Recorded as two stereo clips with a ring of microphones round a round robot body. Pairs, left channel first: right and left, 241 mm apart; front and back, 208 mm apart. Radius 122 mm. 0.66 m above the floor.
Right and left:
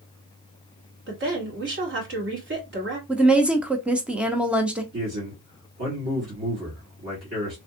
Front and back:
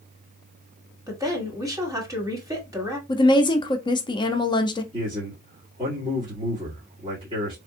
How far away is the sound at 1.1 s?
About 1.6 m.